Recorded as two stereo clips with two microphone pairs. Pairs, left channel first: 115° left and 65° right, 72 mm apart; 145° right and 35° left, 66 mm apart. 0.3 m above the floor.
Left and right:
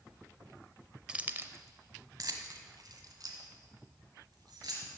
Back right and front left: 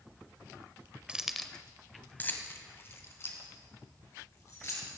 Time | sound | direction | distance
1.1 | keys jangling | 5° right | 0.6 m